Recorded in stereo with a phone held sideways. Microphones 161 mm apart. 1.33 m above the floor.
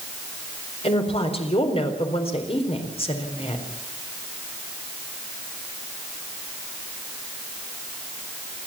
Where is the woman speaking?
40° left (ahead or behind), 4 m.